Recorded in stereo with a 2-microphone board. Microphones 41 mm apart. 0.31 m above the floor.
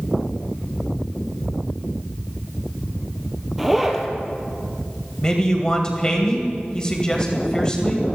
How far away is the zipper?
About 2 m.